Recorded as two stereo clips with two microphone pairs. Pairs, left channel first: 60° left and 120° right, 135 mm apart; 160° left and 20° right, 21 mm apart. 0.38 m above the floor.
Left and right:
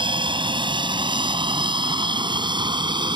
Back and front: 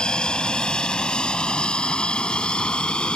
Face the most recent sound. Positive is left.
turn(degrees=-175)